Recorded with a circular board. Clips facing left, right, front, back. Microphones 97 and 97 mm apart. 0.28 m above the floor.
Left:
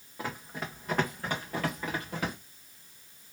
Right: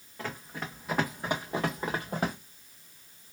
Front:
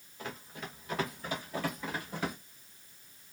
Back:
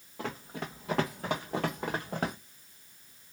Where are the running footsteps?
170° left, 1.3 m; by 2.4 s 135° right, 1.4 m.